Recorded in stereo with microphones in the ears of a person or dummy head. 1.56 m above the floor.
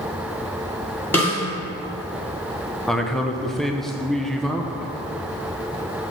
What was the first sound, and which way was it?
A snare drum, 10° left (ahead or behind).